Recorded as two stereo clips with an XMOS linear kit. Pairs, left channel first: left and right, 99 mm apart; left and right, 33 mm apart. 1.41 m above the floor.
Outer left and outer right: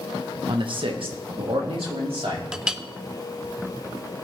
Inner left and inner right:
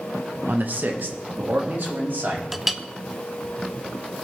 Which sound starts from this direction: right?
A man speaking, at 0.5 s.